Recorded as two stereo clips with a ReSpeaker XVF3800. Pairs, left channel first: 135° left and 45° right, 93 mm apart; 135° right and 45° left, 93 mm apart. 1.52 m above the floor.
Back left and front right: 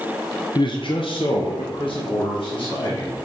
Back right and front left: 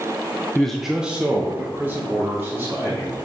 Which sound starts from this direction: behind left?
A man speaking, at 0.6 s.